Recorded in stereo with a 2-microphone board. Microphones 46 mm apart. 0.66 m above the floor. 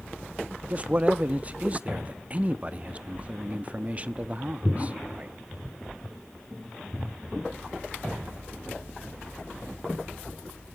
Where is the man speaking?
30° right (ahead or behind), 0.9 m.